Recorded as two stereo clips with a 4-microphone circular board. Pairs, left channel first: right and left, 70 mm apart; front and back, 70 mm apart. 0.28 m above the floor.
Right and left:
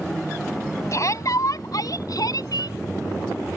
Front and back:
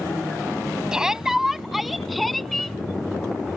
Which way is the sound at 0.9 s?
105° right.